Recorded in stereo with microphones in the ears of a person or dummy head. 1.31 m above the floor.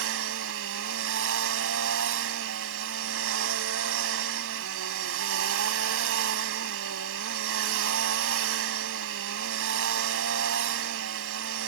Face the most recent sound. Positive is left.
turn(degrees=-70)  # may be behind; listen again after turning